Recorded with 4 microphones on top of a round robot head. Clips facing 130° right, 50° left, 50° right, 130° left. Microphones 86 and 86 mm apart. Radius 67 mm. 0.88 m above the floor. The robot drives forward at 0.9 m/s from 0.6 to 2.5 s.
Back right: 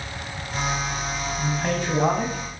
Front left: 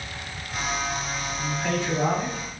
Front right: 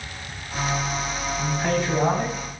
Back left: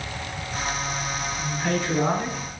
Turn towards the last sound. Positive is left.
turn(degrees=-100)